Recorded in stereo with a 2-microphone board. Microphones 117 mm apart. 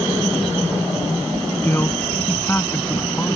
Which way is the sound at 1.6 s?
15° left (ahead or behind).